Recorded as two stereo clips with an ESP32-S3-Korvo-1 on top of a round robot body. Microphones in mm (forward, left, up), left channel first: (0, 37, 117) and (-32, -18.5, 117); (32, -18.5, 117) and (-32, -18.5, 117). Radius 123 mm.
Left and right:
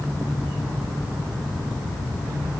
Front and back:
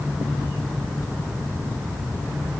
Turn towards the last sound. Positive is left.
No sound to turn to.